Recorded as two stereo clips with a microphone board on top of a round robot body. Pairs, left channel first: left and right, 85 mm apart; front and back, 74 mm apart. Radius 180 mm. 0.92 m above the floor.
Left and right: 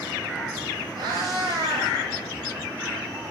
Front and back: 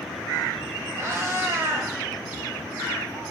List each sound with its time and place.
1.0 s a cat meowing: 125° right, 0.9 m